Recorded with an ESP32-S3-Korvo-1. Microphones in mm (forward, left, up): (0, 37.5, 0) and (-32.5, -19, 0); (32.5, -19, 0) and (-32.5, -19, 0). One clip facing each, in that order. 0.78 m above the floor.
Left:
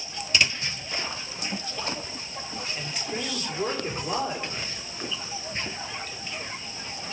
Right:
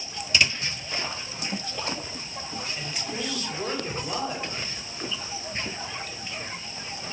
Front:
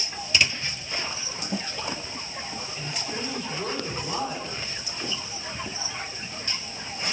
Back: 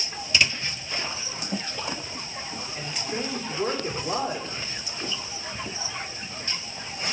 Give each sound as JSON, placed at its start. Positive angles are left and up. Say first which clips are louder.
{"t": 2.8, "sound": "a woman speaking", "louder": "left 2 dB, back 3 dB", "azimuth_deg": 135, "distance_m": 2.5}